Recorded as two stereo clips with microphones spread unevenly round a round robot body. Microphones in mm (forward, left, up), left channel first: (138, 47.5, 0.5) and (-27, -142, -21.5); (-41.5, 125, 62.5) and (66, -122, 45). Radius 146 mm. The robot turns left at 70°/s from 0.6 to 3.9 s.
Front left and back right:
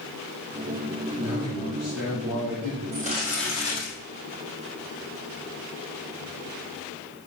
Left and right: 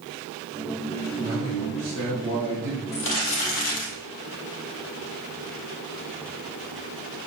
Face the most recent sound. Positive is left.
turn(degrees=100)